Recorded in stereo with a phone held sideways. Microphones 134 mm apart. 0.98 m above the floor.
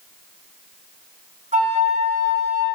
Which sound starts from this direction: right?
A flute, at 1.5 s.